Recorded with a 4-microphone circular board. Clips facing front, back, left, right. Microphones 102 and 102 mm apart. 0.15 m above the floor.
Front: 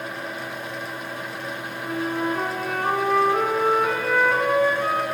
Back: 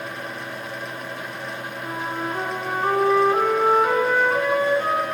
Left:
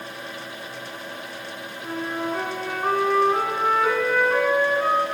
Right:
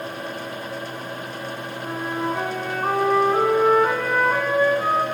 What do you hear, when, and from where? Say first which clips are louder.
1.8 s a flute: front 4 dB, right 1 dB; 175° right, 1.7 m